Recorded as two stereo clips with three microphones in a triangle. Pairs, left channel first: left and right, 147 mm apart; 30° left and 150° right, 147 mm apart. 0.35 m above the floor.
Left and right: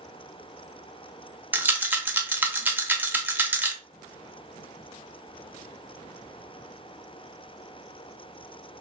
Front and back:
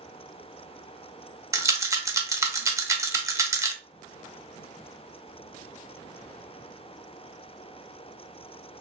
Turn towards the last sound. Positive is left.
turn(degrees=-140)